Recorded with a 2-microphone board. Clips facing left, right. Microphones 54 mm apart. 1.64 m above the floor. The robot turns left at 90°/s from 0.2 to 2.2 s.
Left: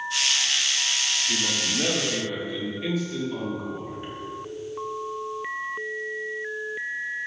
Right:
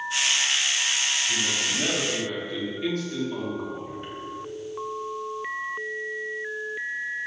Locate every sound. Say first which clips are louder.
1.3 s a man speaking: even; 90° left, 3 m; by 4.1 s 5° left, 3 m